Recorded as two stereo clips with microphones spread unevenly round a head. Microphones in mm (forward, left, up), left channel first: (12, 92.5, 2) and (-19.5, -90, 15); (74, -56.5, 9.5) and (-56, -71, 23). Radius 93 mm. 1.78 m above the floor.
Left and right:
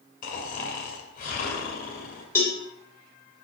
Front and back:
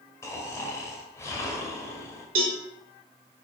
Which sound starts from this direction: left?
Snoring, at 0.2 s.